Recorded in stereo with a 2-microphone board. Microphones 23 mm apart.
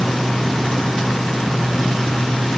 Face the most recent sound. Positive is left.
No sound to turn to.